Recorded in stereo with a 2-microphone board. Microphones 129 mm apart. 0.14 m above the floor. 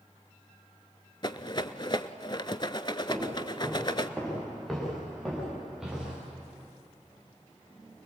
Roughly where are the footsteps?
Centre.